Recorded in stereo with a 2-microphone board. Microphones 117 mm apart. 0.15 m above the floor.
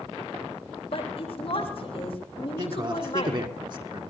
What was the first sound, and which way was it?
A woman speaking, 55° left (ahead or behind).